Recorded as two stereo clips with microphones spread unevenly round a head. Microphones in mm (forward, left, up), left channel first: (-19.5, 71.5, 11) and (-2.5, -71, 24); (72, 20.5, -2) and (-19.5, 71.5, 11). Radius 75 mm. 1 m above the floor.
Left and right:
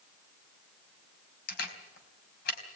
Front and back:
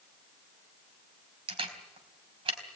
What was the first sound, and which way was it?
A camera shutter, 120° left.